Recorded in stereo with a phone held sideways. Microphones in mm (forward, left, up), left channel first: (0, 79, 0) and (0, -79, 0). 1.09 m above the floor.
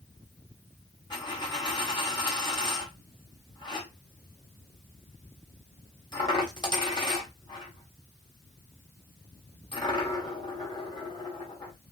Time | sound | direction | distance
1.1 | a dropped coin | 25° left (ahead or behind) | 1.4 m